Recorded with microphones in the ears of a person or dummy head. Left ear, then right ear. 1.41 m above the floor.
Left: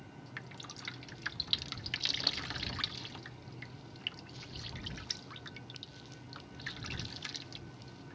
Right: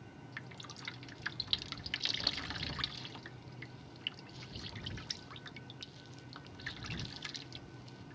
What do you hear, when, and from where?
0.4 s dripping: centre (ahead or behind)